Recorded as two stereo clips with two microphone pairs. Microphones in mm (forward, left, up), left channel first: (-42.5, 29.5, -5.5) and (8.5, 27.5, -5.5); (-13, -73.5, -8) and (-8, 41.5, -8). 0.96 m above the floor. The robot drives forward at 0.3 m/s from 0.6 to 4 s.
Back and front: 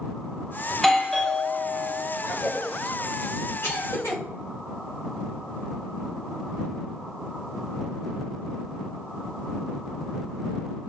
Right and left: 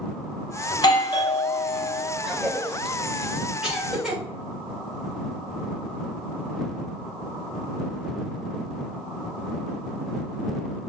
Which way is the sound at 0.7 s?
95° right.